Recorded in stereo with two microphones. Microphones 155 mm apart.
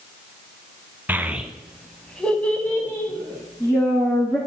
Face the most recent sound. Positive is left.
turn(degrees=15)  # may be behind; listen again after turning